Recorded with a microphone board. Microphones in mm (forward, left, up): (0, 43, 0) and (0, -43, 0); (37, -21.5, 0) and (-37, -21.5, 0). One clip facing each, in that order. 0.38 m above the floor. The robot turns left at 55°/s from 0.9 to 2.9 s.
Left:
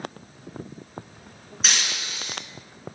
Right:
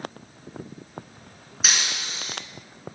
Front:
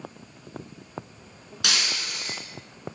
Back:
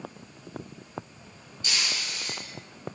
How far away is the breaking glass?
About 3 m.